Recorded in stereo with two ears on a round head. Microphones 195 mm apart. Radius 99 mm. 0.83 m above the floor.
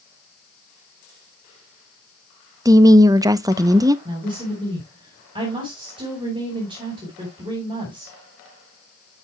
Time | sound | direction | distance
2.6 | a woman speaking | 15° right (ahead or behind) | 0.5 m
4.0 | a woman speaking | 25° right (ahead or behind) | 3 m